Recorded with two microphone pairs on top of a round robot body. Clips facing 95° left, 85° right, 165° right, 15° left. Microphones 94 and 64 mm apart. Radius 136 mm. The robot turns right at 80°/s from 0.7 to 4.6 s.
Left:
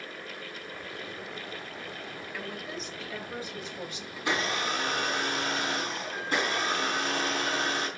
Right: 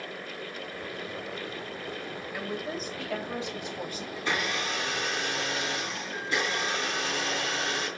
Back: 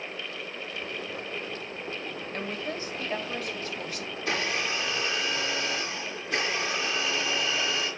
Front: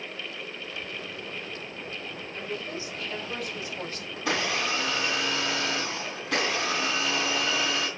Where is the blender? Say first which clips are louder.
Left 1 dB, front 2 dB; 10° left, 3.5 m; by 7.9 s 45° left, 3.5 m.